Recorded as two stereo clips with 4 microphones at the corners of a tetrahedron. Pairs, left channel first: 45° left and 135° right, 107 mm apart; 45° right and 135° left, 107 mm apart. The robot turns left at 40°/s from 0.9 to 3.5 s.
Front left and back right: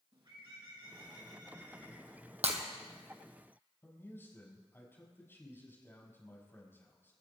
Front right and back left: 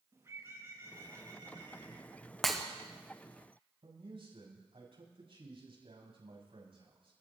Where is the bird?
170° right, 3.5 m; by 2.2 s 140° left, 3.5 m.